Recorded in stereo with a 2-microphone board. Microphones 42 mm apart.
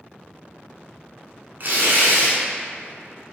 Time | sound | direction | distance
1.6 | tearing paper | 50° right (ahead or behind) | 0.8 m